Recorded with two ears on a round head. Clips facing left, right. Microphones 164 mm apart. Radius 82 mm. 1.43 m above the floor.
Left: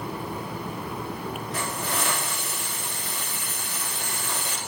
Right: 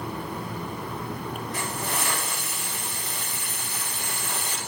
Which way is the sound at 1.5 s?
55° left (ahead or behind).